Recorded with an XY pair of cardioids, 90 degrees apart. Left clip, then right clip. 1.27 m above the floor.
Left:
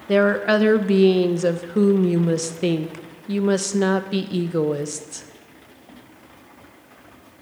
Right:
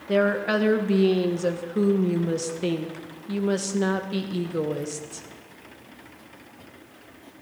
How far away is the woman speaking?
About 1.3 m.